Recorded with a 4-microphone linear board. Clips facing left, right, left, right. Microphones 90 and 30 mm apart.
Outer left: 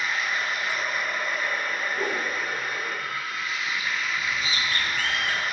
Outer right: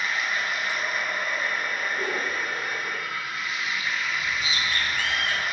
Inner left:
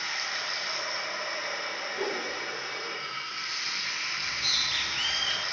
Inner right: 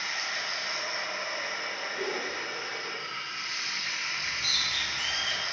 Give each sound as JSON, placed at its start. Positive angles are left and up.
{"t": 0.0, "sound": "running water", "side_deg": 30, "distance_m": 0.8}
{"t": 1.9, "sound": "a whoosh", "side_deg": 55, "distance_m": 1.1}
{"t": 4.2, "sound": "a bird", "side_deg": 45, "distance_m": 0.6}